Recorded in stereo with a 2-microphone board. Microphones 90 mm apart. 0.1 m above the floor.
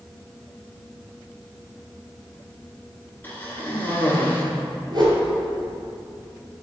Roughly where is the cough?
Left.